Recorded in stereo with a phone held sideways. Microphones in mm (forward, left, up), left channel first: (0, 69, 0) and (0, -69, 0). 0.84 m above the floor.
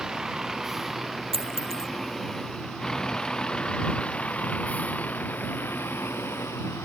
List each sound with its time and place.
0.0 s a vehicle: 5° right (ahead or behind); by 6.9 s 20° left (ahead or behind)
1.3 s a dropped coin: 45° right (ahead or behind)